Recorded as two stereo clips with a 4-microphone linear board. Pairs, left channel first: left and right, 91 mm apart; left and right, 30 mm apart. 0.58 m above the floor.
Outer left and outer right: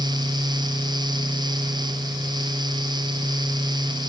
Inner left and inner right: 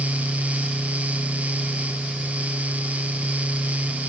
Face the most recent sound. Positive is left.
No sound to turn to.